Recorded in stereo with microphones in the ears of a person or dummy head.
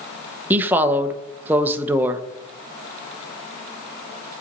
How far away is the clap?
No clap in this recording.